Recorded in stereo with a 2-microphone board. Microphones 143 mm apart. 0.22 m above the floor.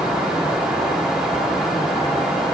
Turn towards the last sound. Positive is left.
No sound to turn to.